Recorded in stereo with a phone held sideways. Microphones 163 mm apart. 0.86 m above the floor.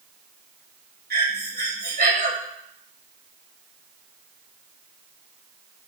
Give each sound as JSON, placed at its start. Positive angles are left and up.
{"t": 1.1, "sound": "breathing", "side_deg": -85, "distance_m": 2.0}